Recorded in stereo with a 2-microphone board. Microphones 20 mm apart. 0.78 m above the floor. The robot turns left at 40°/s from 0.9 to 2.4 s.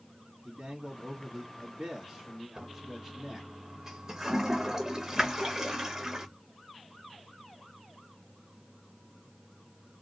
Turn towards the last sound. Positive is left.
turn(degrees=-30)  # may be behind; listen again after turning